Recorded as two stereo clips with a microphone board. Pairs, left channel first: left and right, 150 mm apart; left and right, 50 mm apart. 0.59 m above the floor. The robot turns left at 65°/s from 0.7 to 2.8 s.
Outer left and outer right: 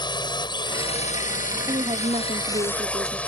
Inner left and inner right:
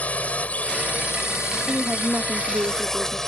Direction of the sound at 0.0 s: 145° left.